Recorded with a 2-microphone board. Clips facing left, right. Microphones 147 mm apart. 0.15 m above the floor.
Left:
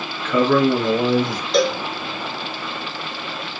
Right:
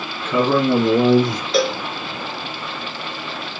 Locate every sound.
0.2 s a man speaking: 25° right (ahead or behind), 1.4 m; by 1.4 s 50° right (ahead or behind), 1.7 m
1.5 s a cowbell: centre (ahead or behind), 0.5 m